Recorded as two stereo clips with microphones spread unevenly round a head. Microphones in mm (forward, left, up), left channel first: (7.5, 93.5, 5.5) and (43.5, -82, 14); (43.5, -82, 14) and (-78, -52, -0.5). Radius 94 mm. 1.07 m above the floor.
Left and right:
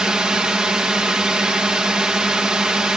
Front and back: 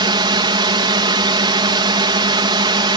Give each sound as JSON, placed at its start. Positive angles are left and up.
{"t": 0.0, "sound": "a drone", "azimuth_deg": -165}